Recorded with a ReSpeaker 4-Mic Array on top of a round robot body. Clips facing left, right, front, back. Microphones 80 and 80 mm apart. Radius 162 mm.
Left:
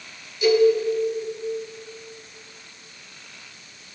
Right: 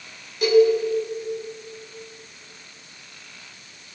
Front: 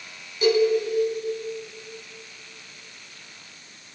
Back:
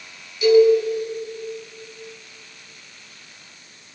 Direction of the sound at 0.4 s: 50° right.